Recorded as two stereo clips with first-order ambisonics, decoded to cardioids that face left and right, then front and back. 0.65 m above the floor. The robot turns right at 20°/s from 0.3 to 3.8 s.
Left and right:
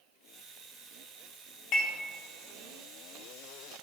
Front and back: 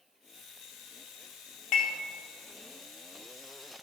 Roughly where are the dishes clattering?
Ahead left.